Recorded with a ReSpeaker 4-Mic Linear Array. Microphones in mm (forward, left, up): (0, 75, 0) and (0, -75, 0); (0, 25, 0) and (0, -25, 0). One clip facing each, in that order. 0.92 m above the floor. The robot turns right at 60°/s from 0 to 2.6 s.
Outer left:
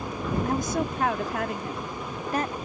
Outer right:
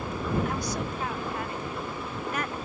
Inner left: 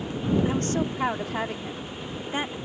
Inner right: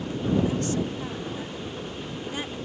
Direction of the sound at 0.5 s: 35° left.